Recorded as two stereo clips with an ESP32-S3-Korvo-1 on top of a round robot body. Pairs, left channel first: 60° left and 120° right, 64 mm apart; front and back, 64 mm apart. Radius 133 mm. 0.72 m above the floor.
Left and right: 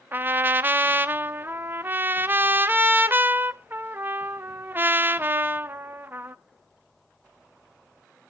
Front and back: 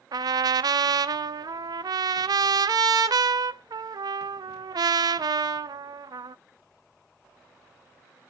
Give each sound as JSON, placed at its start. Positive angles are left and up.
{"t": 0.1, "sound": "a trumpet", "azimuth_deg": 180, "distance_m": 0.7}